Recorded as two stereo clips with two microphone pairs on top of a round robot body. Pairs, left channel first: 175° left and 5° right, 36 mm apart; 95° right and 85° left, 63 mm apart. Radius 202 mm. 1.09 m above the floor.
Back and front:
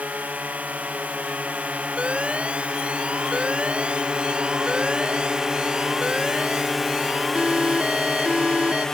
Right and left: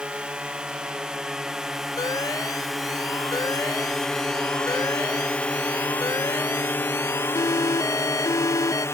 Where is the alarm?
65° right.